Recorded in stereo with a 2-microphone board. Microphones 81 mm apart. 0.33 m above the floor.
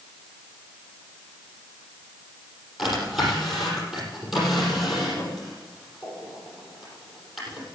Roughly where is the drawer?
Centre.